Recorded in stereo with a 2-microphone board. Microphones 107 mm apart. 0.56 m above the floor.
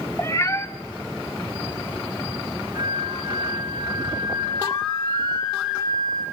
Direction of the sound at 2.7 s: 45° right (ahead or behind).